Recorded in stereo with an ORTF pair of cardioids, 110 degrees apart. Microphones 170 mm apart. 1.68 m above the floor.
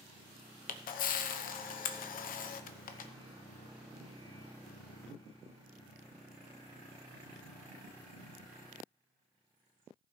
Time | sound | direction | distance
0.7 | a camera shutter | 55° left | 0.9 m